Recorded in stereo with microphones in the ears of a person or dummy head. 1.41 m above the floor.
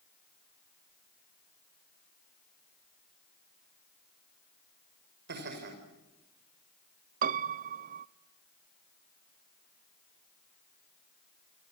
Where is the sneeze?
No sneeze in this recording.